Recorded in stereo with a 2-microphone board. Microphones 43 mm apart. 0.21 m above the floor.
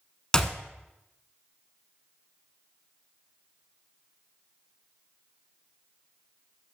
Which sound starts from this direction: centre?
A clap, at 0.3 s.